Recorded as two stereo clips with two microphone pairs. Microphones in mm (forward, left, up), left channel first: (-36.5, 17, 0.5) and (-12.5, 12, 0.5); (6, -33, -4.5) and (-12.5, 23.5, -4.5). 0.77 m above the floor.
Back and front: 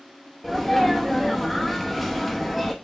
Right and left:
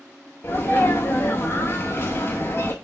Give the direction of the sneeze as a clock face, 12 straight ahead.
4 o'clock.